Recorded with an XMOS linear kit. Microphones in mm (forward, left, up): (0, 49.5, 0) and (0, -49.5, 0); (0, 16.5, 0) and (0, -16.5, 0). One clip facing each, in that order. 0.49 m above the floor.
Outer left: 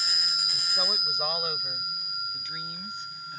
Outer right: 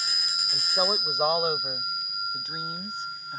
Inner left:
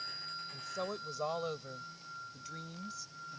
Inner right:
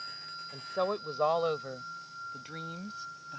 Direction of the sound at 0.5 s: 40° right (ahead or behind).